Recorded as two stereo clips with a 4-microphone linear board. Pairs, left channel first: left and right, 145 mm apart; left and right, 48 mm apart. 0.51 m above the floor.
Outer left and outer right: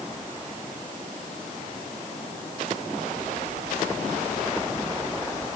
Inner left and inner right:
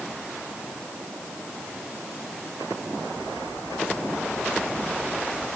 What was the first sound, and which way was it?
Only background noise.